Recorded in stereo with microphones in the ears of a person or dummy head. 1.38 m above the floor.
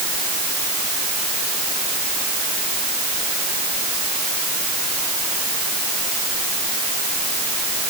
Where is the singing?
No singing in this recording.